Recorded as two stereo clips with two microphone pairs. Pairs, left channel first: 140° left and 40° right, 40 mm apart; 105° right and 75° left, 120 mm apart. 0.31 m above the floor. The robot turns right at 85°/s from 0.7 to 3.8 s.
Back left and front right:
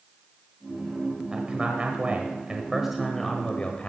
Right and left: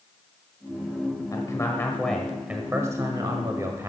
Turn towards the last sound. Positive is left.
turn(degrees=115)